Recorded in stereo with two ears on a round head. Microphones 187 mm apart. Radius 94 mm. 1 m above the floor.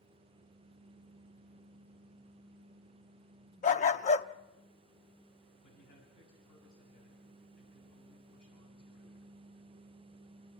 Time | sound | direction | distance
3.6 | a dog barking | 35° left (ahead or behind) | 0.5 m
5.6 | a man speaking | 45° left (ahead or behind) | 7 m